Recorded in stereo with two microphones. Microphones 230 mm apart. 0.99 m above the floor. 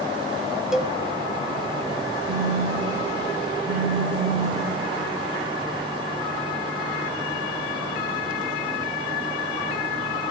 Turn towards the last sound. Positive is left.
turn(degrees=-30)  # may be behind; listen again after turning